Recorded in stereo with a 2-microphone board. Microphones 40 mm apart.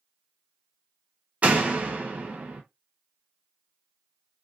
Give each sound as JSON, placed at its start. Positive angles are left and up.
{"t": 1.4, "sound": "a door slam", "side_deg": -35, "distance_m": 0.7}